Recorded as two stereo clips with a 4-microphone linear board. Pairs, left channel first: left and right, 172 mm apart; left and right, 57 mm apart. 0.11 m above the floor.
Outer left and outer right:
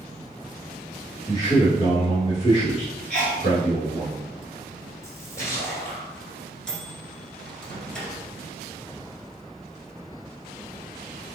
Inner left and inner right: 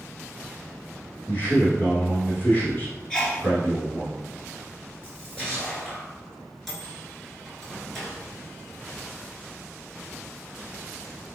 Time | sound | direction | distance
1.3 | a man speaking | 20° left (ahead or behind) | 1.3 m
3.1 | a sneeze | 10° left (ahead or behind) | 1.2 m
5.0 | a splash | 15° left (ahead or behind) | 1.6 m
6.7 | a microwave | 5° left (ahead or behind) | 1.1 m